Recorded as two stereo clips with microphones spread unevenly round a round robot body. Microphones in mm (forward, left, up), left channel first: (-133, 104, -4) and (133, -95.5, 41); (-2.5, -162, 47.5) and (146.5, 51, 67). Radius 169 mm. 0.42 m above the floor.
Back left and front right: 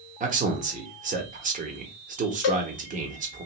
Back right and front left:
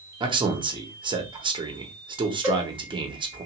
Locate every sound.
0.2 s a man speaking: 5° left, 0.7 m
2.4 s a cowbell: 140° left, 0.8 m